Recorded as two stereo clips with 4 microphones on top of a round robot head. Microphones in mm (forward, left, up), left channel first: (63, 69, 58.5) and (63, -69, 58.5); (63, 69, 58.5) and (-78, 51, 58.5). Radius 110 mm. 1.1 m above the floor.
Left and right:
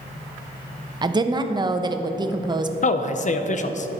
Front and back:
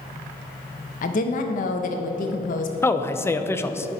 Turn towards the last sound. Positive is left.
turn(degrees=80)